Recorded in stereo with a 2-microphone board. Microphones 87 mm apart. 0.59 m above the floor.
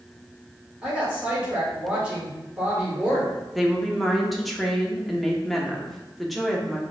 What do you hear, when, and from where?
0.8 s a woman speaking: 15° right (ahead or behind), 1.8 m
3.5 s a woman speaking: centre (ahead or behind), 0.8 m